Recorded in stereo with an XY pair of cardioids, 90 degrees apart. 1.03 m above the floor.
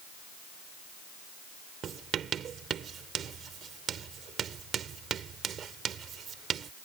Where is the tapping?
No tapping in this recording.